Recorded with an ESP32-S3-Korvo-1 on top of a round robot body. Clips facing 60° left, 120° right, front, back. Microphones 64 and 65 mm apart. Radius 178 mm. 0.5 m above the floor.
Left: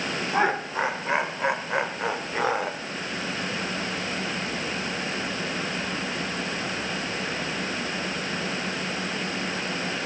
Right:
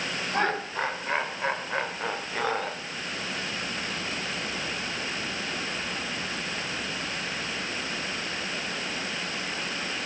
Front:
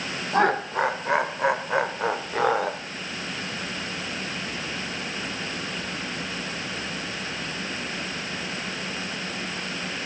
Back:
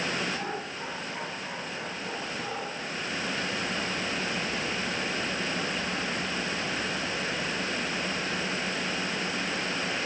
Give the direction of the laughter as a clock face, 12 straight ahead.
1 o'clock.